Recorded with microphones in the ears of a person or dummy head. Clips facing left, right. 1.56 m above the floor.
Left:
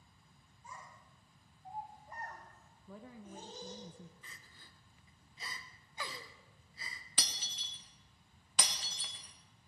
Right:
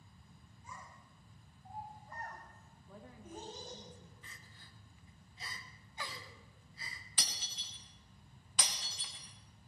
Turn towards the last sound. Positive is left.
turn(degrees=60)  # may be behind; listen again after turning